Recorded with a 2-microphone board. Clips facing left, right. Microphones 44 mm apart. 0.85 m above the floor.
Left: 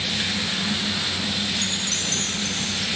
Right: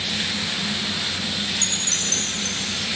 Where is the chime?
5° left (ahead or behind).